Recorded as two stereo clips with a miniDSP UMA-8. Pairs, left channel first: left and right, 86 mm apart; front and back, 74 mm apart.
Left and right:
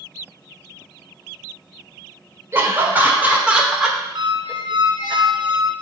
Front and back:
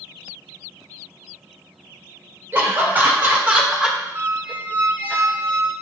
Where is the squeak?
115° right, 0.6 m.